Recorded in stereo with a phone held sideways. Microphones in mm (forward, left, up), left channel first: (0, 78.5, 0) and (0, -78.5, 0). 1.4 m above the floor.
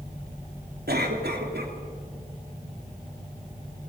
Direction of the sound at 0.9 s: 85° right.